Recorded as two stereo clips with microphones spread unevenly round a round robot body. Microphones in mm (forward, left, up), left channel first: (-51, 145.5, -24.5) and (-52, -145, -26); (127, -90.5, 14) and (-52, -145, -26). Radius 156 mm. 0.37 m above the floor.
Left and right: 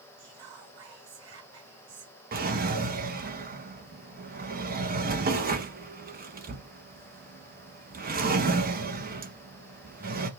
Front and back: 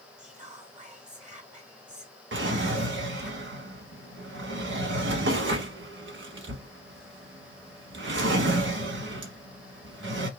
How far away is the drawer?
About 1.2 m.